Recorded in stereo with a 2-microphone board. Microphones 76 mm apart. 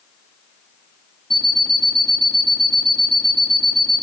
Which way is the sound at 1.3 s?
5° left (ahead or behind).